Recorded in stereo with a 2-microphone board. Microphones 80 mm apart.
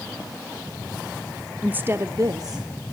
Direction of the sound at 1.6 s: 15° right (ahead or behind).